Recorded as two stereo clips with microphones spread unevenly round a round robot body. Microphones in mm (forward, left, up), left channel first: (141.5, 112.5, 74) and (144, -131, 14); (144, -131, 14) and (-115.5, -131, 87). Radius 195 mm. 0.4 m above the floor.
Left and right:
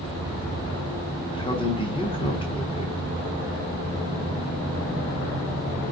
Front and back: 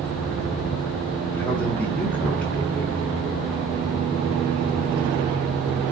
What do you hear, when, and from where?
1.3 s a man speaking: 20° left, 1.1 m